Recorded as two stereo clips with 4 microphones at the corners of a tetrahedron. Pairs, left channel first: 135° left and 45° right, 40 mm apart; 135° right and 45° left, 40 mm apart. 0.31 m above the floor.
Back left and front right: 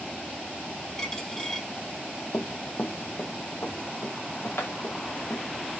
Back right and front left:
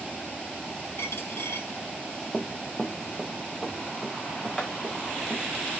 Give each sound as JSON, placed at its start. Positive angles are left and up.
{"t": 1.0, "sound": "a dropped coin", "azimuth_deg": -150, "distance_m": 2.5}
{"t": 2.3, "sound": "running footsteps", "azimuth_deg": 150, "distance_m": 0.5}